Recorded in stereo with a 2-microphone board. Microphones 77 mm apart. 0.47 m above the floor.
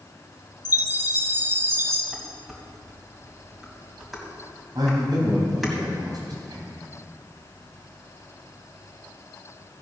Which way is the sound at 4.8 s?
60° right (ahead or behind).